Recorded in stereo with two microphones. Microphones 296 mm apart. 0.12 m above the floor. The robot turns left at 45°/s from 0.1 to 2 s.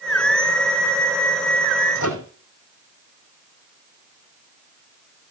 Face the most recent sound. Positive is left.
turn(degrees=75)  # may be behind; listen again after turning